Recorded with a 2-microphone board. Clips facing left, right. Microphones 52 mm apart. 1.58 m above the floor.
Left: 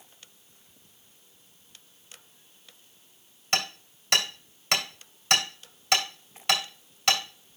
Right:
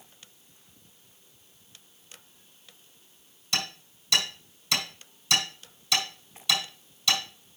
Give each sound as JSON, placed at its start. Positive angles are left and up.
{"t": 3.5, "sound": "hammering", "side_deg": 55, "distance_m": 2.5}